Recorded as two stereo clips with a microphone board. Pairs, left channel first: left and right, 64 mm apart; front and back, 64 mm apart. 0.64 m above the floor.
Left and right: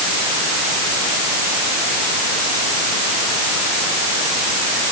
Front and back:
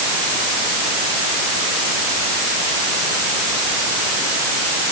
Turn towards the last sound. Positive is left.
No sound to turn to.